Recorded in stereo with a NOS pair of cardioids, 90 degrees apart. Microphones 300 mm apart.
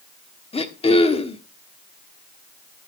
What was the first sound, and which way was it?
Throat clearing, 20° left.